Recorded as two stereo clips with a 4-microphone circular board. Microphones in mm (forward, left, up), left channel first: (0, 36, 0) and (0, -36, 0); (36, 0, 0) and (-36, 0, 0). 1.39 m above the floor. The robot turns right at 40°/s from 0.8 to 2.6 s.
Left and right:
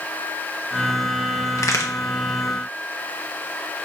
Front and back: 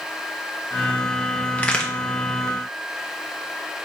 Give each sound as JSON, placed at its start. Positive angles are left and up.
{"t": 1.6, "sound": "a crack", "azimuth_deg": 65, "distance_m": 0.7}